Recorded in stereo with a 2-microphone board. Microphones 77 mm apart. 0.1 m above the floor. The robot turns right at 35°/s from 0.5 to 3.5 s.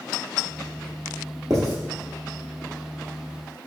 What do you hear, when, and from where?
1.5 s writing: 50° right (ahead or behind), 1.3 m; by 1.7 s 45° right (ahead or behind), 1.3 m